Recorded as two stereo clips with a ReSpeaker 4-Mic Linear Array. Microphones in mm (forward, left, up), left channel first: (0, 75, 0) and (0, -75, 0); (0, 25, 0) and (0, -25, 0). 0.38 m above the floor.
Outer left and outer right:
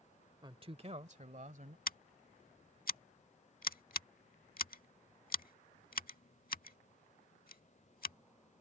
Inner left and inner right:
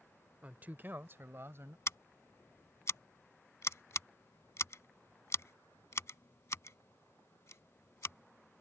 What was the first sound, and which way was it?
A man speaking, 30° right (ahead or behind).